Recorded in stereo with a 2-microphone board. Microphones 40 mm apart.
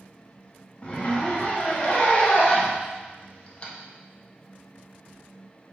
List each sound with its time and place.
0.8 s a zipper: 30° left (ahead or behind), 0.6 m